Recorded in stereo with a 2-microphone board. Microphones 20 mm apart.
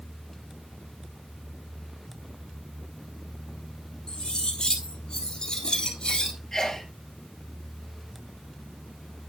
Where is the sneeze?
20° left (ahead or behind), 3.5 m.